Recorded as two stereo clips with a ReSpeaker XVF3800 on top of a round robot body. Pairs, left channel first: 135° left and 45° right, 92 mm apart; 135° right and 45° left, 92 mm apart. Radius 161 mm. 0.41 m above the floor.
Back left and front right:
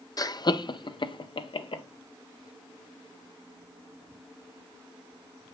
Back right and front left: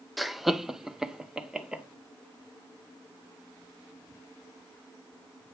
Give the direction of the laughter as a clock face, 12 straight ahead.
7 o'clock.